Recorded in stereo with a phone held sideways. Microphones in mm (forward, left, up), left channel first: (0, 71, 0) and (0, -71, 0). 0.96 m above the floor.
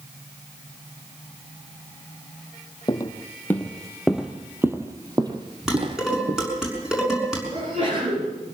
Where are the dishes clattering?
5° right (ahead or behind), 6 m.